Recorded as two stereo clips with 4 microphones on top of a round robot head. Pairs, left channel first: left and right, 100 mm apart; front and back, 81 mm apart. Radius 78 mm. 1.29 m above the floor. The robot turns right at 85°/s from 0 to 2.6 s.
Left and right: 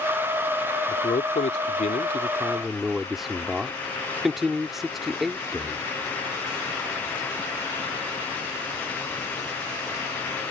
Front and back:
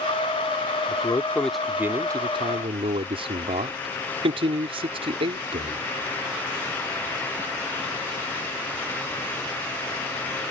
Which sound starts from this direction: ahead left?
A man speaking, at 0.9 s.